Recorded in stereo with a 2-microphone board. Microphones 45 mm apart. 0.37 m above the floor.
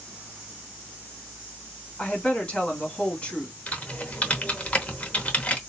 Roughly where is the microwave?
No microwave in this recording.